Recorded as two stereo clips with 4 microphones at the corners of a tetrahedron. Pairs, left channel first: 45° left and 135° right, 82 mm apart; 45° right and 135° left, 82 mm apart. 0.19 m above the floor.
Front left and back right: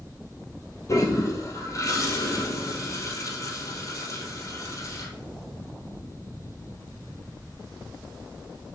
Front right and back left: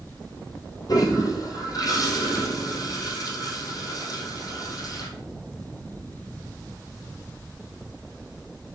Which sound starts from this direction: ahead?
A toilet flushing, at 0.9 s.